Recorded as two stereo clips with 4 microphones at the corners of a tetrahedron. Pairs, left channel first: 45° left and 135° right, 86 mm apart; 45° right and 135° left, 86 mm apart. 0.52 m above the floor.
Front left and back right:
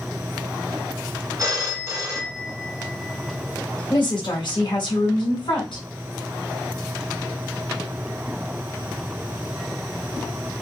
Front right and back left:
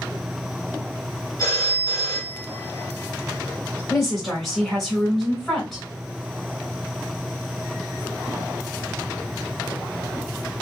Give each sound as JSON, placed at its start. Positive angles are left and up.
{"t": 1.4, "sound": "a phone ringing", "azimuth_deg": -85, "distance_m": 1.4}
{"t": 3.9, "sound": "a woman speaking", "azimuth_deg": 45, "distance_m": 2.0}